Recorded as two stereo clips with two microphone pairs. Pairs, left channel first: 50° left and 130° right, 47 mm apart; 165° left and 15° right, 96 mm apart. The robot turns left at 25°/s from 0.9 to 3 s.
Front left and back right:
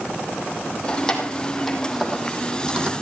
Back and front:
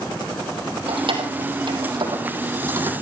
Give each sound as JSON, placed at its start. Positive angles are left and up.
{"t": 0.9, "sound": "keys jangling", "azimuth_deg": -20, "distance_m": 3.0}